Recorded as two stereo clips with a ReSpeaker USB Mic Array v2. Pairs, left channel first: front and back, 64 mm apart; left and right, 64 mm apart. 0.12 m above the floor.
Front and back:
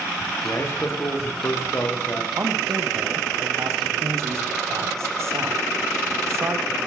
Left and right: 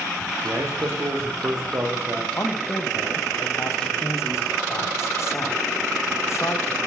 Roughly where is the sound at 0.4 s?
Ahead right.